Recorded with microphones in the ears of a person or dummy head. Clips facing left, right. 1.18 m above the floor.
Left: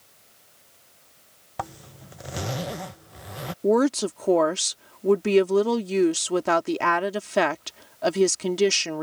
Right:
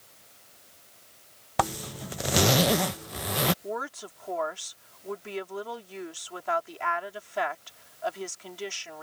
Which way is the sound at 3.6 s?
80° left.